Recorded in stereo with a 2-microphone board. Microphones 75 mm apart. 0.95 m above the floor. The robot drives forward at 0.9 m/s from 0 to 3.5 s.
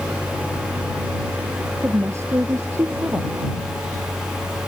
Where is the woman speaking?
35° right (ahead or behind).